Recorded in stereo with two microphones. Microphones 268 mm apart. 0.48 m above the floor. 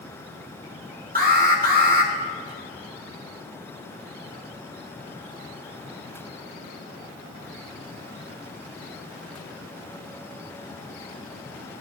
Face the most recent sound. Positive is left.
turn(degrees=-35)  # may be behind; listen again after turning